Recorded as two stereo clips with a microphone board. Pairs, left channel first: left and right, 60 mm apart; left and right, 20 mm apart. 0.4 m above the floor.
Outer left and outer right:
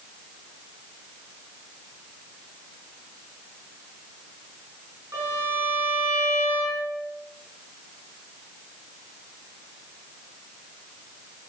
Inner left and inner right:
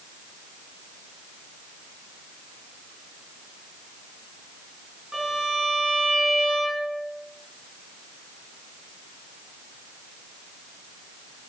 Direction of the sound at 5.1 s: 50° right (ahead or behind).